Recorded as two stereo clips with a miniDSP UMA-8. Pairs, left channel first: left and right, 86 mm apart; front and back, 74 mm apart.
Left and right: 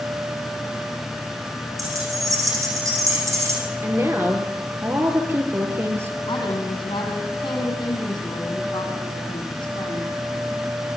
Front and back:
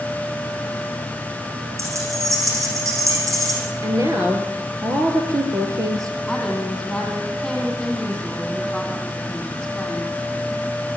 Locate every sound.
1.8 s keys jangling: 135° right, 8.5 m; by 3.6 s 140° right, 7.5 m
3.8 s a woman speaking: 145° right, 4 m
6.3 s a woman speaking: 85° left, 6.5 m